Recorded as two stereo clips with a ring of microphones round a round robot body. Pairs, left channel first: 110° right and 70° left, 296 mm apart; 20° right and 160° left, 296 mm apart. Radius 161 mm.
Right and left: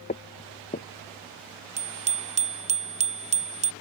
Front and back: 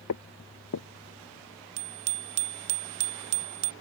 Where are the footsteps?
50° right.